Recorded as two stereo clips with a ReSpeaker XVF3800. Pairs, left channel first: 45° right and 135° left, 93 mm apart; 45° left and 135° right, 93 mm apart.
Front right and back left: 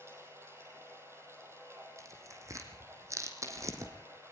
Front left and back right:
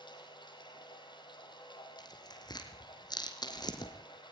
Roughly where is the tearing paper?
Left.